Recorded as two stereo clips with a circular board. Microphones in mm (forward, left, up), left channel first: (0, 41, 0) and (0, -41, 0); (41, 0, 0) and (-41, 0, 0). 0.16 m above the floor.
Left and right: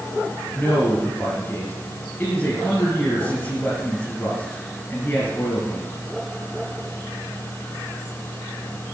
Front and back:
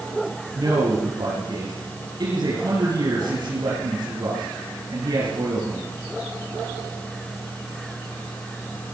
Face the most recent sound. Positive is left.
turn(degrees=160)